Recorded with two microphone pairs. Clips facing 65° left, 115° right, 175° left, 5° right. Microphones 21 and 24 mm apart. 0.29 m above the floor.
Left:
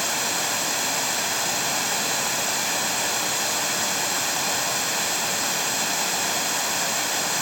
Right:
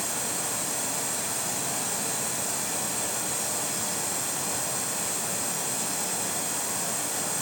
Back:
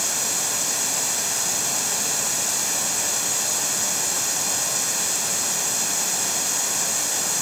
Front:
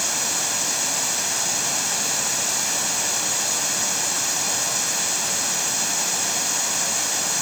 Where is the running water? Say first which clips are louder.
Left 7 dB, front 1 dB; 75° left, 1.3 m.